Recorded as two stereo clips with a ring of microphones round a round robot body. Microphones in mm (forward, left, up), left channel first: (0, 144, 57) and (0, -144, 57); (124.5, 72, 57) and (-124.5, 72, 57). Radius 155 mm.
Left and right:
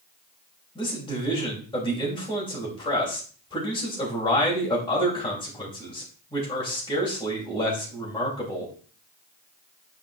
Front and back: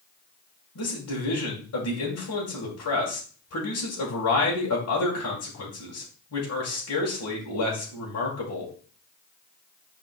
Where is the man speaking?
15° left, 2.5 m.